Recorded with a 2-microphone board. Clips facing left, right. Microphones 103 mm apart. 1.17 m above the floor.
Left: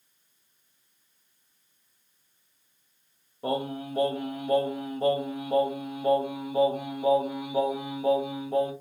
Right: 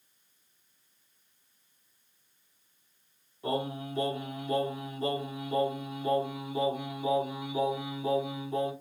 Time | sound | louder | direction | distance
3.4 | singing | left 3 dB | 55° left (ahead or behind) | 1.4 m